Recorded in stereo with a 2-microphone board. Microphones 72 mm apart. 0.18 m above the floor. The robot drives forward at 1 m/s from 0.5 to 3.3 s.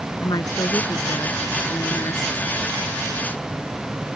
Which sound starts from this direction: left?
A woman speaking, at 0.2 s.